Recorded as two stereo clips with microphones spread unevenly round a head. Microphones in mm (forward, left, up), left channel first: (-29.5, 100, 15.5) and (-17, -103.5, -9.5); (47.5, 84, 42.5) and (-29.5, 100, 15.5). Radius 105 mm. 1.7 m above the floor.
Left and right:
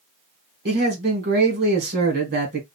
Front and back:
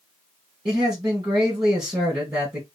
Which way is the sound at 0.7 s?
130° right.